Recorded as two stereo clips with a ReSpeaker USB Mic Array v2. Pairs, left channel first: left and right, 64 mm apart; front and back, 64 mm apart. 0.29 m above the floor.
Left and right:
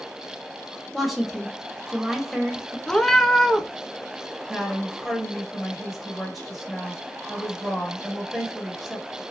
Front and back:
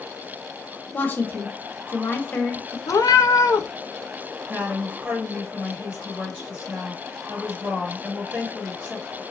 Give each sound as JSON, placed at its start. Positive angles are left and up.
{"t": 0.9, "sound": "a woman speaking", "azimuth_deg": -5, "distance_m": 1.1}
{"t": 2.9, "sound": "a cat meowing", "azimuth_deg": 10, "distance_m": 0.6}
{"t": 4.5, "sound": "a woman speaking", "azimuth_deg": -170, "distance_m": 1.2}